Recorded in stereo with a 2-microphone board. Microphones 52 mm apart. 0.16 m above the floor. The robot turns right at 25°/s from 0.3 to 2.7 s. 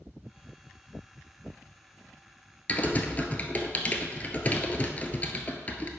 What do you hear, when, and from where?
2.7 s typing on a keyboard: 30° left (ahead or behind), 0.9 m